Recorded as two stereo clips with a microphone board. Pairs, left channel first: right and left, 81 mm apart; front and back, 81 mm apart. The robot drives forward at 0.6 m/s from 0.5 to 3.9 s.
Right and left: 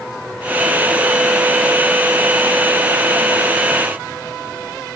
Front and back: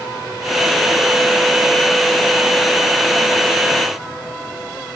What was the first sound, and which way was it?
Only background noise.